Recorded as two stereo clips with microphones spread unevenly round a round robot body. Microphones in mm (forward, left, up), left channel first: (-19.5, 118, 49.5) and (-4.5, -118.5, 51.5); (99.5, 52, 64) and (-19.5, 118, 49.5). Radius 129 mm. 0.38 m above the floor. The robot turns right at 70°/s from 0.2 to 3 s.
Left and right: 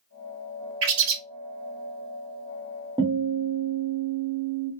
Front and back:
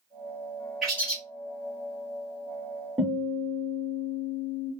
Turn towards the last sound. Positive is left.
turn(degrees=-135)